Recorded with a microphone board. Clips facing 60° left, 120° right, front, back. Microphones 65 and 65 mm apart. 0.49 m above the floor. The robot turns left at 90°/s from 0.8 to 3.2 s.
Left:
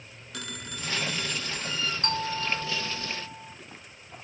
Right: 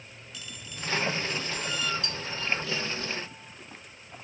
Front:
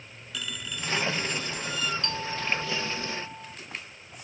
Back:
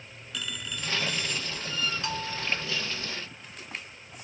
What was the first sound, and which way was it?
A phone ringing, 90° left.